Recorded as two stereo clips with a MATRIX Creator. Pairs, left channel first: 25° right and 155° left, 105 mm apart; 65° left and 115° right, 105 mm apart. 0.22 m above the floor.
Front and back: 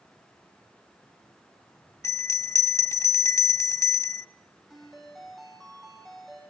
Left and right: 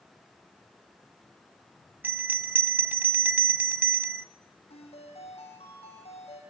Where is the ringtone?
65° left, 6.5 m.